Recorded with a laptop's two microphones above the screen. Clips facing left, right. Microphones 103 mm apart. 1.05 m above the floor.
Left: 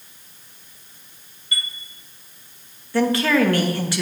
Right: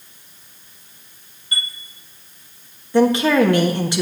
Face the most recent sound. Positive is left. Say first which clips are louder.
# right 4 dB
turn(degrees=-20)  # may be behind; listen again after turning